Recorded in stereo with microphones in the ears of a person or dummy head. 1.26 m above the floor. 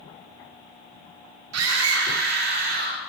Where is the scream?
80° right, 3.5 m; by 3.0 s 55° right (ahead or behind), 3.5 m.